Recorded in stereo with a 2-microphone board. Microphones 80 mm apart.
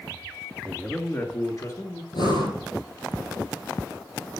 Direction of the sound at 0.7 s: 5° left (ahead or behind).